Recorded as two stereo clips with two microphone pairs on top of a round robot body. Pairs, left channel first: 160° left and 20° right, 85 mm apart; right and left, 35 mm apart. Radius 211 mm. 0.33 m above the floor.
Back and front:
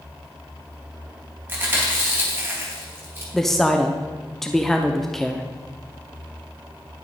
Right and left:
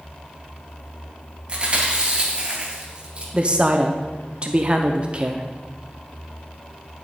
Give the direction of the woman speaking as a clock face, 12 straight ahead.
10 o'clock.